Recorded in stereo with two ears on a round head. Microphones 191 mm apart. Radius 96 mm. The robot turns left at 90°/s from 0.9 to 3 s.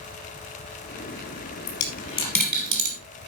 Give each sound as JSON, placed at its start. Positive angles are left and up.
{"t": 1.7, "sound": "a dropped coin", "side_deg": 70, "distance_m": 3.0}